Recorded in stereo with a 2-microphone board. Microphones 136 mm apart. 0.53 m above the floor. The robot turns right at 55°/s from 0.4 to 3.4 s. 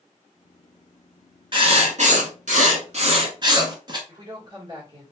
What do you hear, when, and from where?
1.5 s writing: 140° right, 0.9 m; by 4.0 s 35° right, 0.9 m
4.1 s a woman speaking: 30° right (ahead or behind), 1.4 m